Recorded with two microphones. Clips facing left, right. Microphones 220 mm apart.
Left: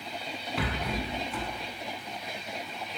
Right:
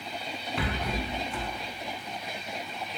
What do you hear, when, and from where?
0.6 s a rattle: centre (ahead or behind), 0.6 m